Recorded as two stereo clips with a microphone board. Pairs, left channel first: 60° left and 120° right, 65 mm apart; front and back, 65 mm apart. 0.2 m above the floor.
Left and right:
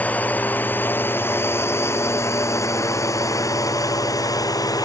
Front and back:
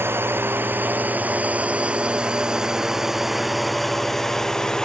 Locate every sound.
0.0 s a drone: 125° left; by 4.9 s 80° left